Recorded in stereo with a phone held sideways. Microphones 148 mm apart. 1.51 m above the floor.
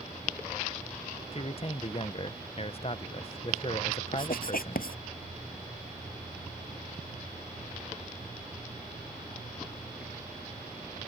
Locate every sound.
1.3 s a man speaking: 40° left (ahead or behind)
4.1 s writing: 75° left (ahead or behind)